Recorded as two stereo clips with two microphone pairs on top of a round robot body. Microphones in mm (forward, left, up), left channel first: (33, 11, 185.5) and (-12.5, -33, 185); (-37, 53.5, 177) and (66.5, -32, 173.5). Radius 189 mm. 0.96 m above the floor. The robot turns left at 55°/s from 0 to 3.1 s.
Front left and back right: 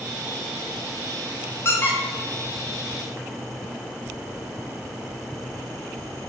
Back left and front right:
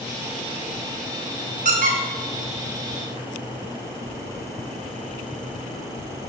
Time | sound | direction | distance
1.6 | a squeak | 10° right | 0.5 m